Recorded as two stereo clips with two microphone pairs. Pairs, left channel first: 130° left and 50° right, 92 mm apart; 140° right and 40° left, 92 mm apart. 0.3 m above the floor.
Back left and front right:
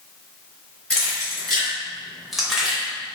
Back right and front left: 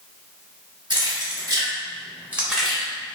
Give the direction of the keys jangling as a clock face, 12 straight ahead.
10 o'clock.